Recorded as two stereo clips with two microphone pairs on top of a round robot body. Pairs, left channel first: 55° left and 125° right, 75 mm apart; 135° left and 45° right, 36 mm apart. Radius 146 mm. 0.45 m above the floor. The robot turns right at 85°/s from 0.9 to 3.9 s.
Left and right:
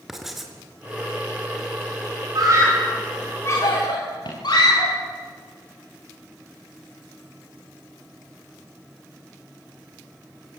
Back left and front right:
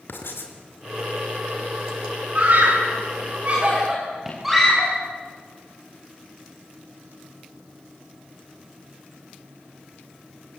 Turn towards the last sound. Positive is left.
turn(degrees=35)